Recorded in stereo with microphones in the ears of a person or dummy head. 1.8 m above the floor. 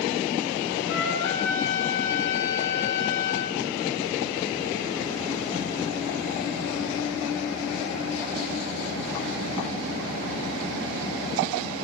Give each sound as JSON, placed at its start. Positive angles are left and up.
{"t": 0.9, "sound": "a trumpet", "side_deg": 70, "distance_m": 1.6}